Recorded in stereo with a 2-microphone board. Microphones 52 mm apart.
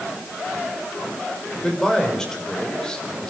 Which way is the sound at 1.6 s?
10° left (ahead or behind).